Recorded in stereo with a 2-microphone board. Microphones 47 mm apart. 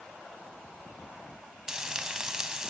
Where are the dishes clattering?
No dishes clattering in this recording.